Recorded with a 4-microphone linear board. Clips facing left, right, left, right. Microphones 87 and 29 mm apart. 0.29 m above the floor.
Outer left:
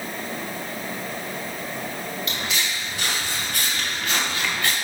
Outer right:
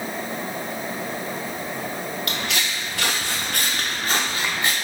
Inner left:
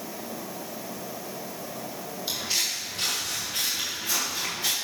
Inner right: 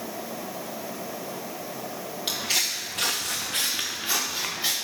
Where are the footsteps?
60° right (ahead or behind), 2 m; by 4.7 s 15° right (ahead or behind), 2.5 m.